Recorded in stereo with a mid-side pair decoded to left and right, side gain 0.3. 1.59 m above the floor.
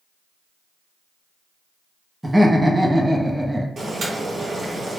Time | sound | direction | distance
2.2 | laughter | 20° right | 0.7 m
3.8 | boiling | 65° right | 0.9 m